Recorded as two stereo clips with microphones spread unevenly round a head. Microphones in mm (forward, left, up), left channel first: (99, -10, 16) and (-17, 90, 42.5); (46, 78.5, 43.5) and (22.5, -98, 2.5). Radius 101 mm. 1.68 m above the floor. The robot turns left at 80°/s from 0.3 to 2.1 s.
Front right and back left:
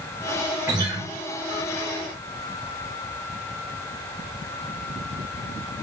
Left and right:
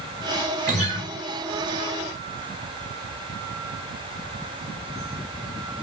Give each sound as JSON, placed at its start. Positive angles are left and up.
{"t": 0.7, "sound": "a guitar", "azimuth_deg": -145, "distance_m": 0.6}